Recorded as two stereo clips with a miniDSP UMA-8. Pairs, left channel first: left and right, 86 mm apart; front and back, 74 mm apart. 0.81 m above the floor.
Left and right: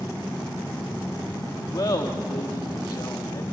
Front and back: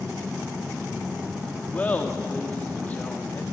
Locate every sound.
1.7 s laughter: 60° left, 1.5 m